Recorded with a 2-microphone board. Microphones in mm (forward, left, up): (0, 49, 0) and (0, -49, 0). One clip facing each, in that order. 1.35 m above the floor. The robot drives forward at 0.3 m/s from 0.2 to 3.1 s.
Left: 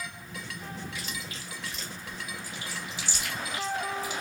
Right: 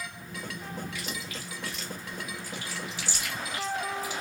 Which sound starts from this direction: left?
Chewing, at 0.9 s.